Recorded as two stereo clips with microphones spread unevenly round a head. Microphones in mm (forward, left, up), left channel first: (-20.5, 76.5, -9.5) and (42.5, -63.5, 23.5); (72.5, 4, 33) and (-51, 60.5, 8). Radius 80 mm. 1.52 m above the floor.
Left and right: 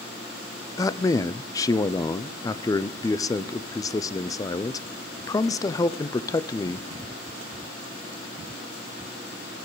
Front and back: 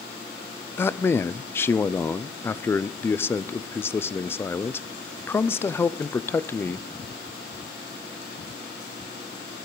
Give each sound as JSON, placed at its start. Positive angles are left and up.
{"t": 0.8, "sound": "a man speaking", "azimuth_deg": 55, "distance_m": 0.6}